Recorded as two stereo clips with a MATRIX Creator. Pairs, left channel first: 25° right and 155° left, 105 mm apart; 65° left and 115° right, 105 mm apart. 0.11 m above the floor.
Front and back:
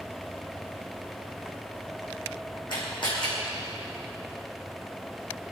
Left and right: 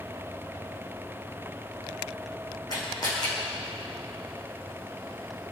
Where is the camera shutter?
20° left, 6.5 m.